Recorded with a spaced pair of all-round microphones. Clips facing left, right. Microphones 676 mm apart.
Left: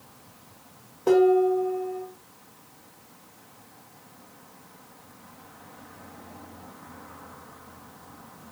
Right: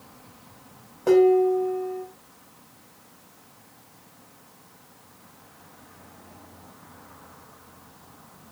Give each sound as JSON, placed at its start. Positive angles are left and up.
{"t": 1.1, "sound": "dishes clattering", "side_deg": -15, "distance_m": 1.0}